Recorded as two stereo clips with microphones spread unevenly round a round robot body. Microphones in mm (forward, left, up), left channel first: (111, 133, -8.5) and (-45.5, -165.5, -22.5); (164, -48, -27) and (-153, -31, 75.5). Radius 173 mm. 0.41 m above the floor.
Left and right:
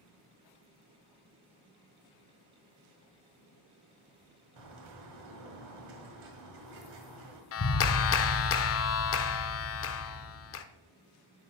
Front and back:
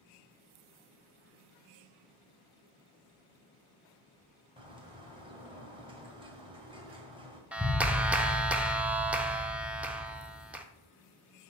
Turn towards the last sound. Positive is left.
turn(degrees=65)